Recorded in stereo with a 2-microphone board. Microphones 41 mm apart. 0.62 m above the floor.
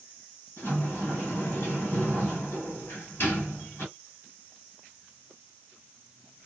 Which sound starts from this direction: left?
A sliding door, at 0.6 s.